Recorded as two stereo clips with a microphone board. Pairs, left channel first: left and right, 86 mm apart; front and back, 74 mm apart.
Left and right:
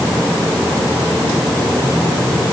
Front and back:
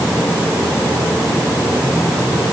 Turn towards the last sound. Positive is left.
No sound to turn to.